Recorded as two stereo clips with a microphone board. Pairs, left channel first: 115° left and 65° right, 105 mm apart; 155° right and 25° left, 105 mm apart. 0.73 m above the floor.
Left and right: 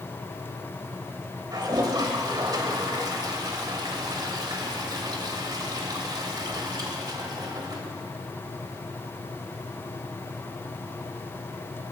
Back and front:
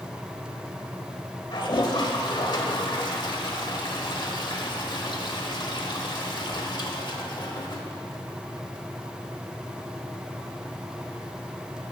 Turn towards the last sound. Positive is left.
turn(degrees=-115)